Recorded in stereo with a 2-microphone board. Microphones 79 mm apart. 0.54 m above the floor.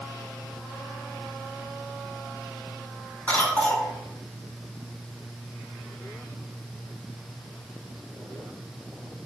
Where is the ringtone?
I don't hear a ringtone.